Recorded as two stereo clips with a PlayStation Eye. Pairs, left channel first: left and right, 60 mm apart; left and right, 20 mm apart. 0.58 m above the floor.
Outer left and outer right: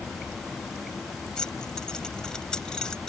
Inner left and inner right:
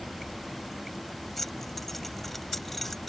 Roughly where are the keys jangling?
Centre.